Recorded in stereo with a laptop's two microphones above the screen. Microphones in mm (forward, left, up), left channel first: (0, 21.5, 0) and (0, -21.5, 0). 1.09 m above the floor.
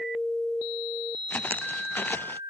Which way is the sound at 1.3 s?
45° left (ahead or behind).